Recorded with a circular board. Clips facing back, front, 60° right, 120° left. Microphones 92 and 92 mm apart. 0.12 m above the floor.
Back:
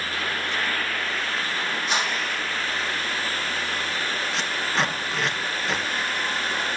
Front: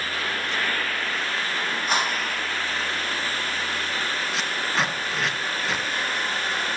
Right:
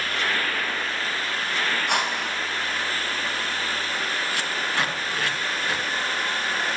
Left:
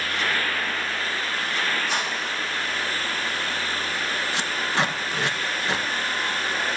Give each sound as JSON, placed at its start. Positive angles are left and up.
{"t": 1.9, "sound": "a whoosh", "azimuth_deg": -40, "distance_m": 6.0}
{"t": 4.3, "sound": "tape being pulled", "azimuth_deg": 85, "distance_m": 1.9}